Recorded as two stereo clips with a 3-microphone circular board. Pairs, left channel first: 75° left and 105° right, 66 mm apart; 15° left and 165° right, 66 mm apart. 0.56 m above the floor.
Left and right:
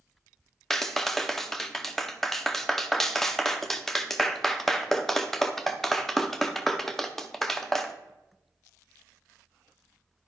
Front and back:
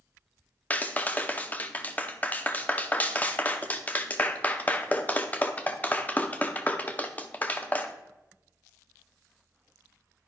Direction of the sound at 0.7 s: 5° right.